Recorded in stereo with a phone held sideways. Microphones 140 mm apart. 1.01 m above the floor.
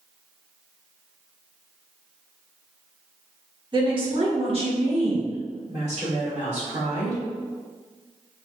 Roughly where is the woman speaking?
Right.